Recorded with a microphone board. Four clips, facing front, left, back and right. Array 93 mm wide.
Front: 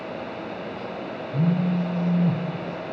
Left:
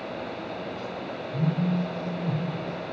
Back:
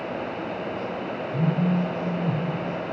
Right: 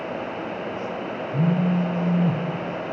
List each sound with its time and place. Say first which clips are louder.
1.3 s a phone buzzing: right 5 dB, front 1 dB; 55° right, 1.0 m